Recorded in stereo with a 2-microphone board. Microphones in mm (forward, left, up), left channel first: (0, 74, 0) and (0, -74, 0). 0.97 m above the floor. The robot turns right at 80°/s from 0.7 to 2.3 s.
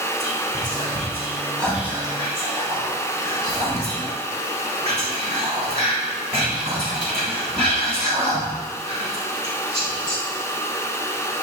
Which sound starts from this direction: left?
Whispering, at 0.2 s.